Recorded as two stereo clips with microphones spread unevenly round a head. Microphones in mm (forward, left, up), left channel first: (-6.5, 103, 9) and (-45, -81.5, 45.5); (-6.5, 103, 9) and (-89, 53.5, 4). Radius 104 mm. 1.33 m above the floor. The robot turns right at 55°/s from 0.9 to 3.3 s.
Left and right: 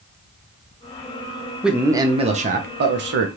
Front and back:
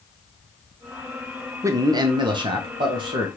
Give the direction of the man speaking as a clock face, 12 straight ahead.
7 o'clock.